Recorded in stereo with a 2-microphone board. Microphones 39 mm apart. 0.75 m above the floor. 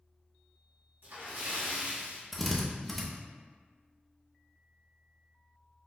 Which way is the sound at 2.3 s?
5° left (ahead or behind).